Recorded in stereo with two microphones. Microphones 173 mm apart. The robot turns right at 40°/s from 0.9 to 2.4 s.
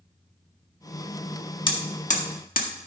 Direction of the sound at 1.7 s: 30° left (ahead or behind).